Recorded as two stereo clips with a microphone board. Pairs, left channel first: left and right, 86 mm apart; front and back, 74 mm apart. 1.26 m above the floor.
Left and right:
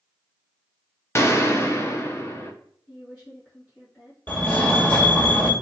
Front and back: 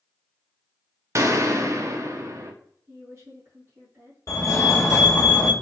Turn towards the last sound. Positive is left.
turn(degrees=30)